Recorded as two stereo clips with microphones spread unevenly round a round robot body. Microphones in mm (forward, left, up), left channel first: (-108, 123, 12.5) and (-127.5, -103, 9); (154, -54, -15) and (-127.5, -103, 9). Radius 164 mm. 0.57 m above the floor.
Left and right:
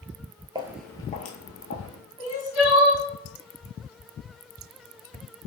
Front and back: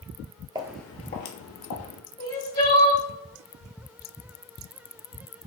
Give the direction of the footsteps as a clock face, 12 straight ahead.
5 o'clock.